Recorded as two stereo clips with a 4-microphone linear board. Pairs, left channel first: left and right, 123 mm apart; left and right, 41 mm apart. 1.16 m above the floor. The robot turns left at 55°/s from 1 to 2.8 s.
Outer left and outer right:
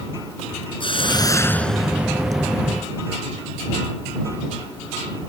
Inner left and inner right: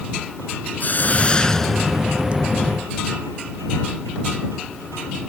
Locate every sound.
0.8 s a hiss: 45° left; by 2.4 s 35° right